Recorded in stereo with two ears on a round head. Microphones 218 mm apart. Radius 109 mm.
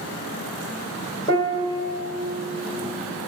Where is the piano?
20° left (ahead or behind), 1.2 m.